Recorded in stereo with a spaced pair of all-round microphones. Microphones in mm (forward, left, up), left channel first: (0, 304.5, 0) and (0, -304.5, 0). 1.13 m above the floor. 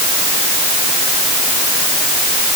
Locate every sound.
Only background noise.